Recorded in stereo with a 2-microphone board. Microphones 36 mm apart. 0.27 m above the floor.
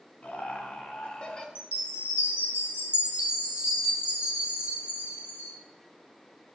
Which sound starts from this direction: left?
Laughter, at 0.2 s.